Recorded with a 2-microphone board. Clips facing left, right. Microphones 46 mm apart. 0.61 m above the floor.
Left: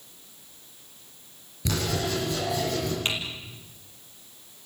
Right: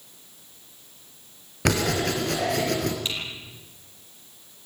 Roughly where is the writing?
Right.